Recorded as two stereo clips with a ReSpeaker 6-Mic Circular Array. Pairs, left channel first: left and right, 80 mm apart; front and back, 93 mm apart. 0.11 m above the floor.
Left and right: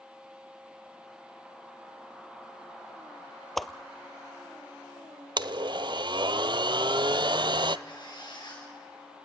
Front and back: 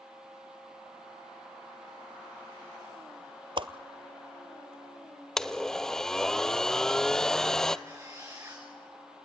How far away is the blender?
About 0.6 m.